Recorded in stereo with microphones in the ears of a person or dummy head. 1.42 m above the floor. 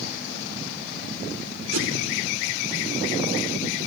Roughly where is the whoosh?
Right.